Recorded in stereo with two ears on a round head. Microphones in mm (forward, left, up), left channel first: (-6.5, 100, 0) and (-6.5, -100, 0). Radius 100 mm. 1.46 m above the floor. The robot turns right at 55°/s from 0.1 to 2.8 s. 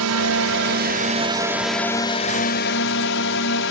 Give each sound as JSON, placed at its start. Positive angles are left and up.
{"t": 0.0, "sound": "a drone", "azimuth_deg": -90}